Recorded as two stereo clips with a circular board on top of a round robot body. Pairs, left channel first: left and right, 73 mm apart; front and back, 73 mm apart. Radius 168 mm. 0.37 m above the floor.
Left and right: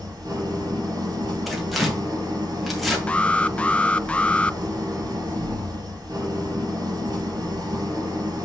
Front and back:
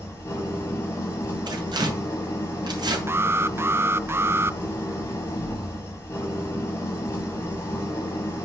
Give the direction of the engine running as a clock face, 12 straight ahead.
2 o'clock.